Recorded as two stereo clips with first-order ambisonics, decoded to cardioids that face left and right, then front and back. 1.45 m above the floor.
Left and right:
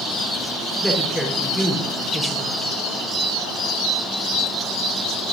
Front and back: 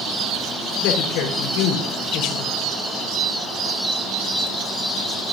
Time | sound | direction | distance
0.8 | a woman speaking | straight ahead | 3.5 m